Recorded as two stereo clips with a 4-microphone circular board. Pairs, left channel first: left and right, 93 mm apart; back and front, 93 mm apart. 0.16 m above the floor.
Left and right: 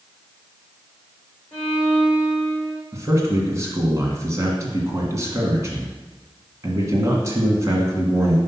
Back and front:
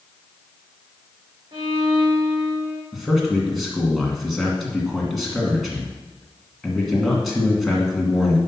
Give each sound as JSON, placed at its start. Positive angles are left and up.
{"t": 1.5, "sound": "a violin", "azimuth_deg": 5, "distance_m": 3.5}
{"t": 2.9, "sound": "a man speaking", "azimuth_deg": -90, "distance_m": 1.9}